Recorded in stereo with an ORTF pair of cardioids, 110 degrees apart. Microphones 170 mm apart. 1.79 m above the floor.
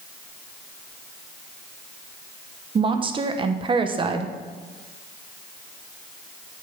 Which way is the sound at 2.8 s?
30° right.